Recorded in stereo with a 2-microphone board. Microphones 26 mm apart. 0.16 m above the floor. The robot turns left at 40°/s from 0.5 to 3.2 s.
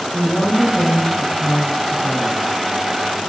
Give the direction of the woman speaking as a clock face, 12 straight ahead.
10 o'clock.